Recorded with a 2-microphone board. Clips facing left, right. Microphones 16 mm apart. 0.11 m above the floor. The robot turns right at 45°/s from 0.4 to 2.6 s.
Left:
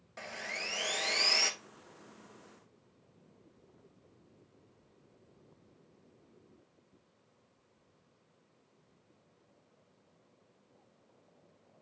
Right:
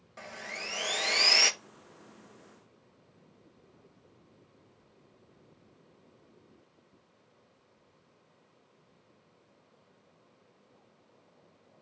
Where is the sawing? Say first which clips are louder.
Left 1 dB; 165° left, 0.6 m; by 1.5 s 145° right, 0.6 m.